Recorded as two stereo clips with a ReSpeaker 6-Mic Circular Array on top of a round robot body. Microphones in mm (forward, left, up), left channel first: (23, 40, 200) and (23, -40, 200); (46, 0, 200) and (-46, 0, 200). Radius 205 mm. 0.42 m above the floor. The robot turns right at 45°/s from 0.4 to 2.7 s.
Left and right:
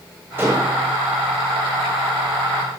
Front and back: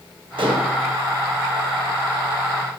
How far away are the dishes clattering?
About 1.9 m.